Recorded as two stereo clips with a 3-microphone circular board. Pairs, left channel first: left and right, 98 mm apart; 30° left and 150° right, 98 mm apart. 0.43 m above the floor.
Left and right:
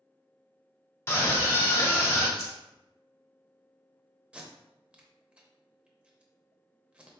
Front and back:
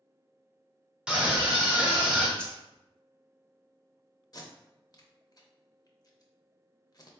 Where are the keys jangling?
105° left, 1.1 m.